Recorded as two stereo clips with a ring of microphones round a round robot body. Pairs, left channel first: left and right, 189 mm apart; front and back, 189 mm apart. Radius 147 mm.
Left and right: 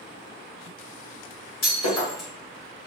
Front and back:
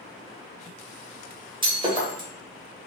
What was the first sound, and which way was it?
Breaking glass, 115° left.